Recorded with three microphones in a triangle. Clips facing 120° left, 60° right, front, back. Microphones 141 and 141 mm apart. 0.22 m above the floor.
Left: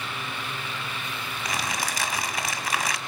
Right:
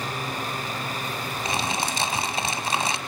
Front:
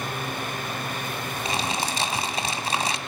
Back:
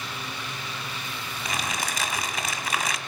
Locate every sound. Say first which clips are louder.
1.4 s crumpling: right 3 dB, front 3 dB; 25° right, 1.6 m